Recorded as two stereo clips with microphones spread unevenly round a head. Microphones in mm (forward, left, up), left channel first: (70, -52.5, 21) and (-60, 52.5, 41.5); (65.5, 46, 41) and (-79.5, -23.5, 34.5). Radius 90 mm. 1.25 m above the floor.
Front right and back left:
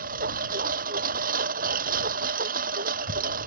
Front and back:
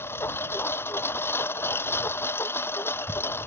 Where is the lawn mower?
100° left.